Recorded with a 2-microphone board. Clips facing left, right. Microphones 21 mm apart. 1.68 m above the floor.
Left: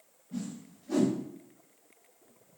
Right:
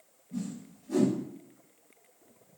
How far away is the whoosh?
About 1.0 m.